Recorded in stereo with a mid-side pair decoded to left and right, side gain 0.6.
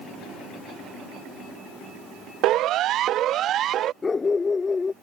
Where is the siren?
65° right; by 3.9 s 55° right.